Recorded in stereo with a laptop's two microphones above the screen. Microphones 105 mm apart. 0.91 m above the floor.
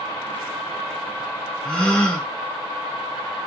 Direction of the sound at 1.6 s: 10° left (ahead or behind).